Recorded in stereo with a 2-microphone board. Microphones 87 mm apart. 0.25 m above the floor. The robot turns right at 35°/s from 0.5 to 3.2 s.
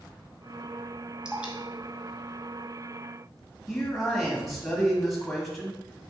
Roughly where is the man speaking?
Centre.